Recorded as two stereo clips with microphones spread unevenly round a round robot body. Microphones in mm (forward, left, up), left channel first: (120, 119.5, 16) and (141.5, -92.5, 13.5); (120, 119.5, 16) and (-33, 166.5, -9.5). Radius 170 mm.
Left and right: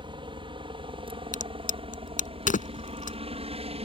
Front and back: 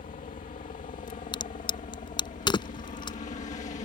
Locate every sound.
0.0 s a helicopter: 30° right; by 3.9 s 45° right
1.3 s a crack: 45° left